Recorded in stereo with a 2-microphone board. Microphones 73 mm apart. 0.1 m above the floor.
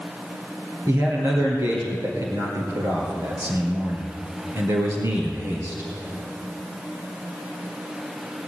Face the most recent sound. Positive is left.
turn(degrees=-45)  # may be behind; listen again after turning